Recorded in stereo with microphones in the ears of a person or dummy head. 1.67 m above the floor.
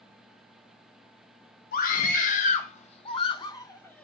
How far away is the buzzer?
I don't hear a buzzer.